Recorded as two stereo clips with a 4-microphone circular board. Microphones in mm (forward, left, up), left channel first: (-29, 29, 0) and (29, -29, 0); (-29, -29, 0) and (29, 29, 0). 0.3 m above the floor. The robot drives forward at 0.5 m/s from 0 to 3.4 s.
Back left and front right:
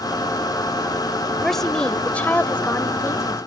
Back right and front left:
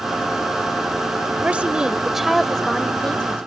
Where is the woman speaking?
50° left; by 3.4 s 160° left.